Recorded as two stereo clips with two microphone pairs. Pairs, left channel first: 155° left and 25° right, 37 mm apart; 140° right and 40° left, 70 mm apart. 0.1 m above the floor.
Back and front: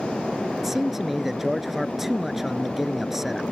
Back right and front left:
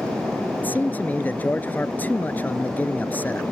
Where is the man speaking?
100° right.